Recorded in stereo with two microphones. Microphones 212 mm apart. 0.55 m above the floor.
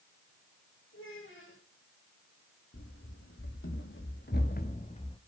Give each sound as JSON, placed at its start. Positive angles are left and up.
{"t": 0.9, "sound": "a child speaking", "side_deg": 65, "distance_m": 9.5}
{"t": 2.7, "sound": "running footsteps", "side_deg": 75, "distance_m": 3.5}